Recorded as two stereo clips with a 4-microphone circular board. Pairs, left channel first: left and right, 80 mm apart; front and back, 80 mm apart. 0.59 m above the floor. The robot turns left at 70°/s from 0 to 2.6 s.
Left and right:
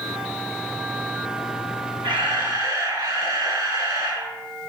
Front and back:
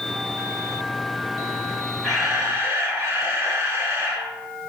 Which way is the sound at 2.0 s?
85° right.